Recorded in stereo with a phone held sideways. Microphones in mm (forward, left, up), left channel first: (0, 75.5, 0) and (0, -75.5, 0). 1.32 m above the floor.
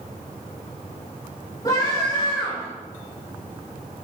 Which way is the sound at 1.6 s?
35° left (ahead or behind).